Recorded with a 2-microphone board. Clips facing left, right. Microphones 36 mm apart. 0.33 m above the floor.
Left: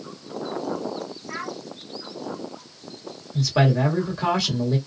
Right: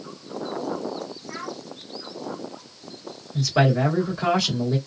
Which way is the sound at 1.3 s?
30° left (ahead or behind).